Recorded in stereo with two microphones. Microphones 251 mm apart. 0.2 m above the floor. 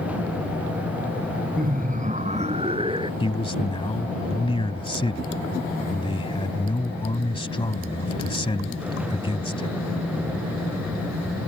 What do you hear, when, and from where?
1.6 s laughter: 35° right (ahead or behind); by 3.1 s 20° right (ahead or behind)
3.2 s a man speaking: 20° left (ahead or behind)